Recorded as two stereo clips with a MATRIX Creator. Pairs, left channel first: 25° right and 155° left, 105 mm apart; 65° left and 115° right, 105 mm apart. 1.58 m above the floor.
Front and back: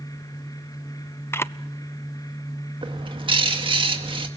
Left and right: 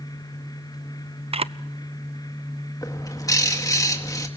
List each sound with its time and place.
1.3 s a camera shutter: 90° right, 0.6 m
2.8 s a bird: 125° left, 2.0 m